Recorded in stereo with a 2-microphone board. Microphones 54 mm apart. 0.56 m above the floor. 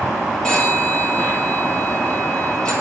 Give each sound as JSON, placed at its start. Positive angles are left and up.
{"t": 0.4, "sound": "a phone ringing", "side_deg": 10, "distance_m": 7.5}